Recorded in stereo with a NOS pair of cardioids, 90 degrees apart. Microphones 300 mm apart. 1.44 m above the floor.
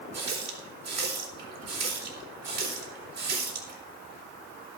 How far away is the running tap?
About 4 m.